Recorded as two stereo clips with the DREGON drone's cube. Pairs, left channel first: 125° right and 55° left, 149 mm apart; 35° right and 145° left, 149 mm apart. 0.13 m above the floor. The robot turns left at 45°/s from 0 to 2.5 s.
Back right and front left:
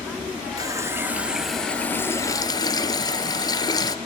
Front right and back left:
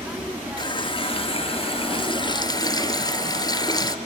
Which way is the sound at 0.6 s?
5° left.